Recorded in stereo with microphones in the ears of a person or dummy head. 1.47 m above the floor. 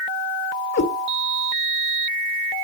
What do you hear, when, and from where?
0.7 s a cat meowing: 55° left (ahead or behind), 1.7 m